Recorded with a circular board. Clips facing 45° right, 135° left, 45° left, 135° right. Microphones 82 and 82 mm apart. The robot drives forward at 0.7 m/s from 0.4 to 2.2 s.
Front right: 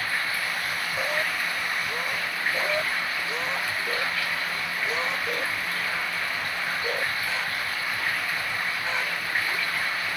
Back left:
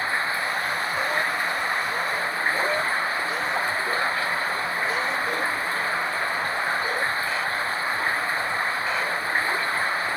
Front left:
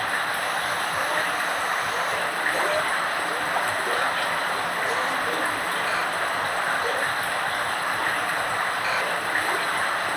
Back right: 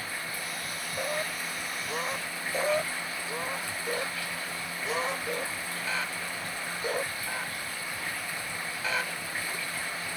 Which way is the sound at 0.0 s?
75° left.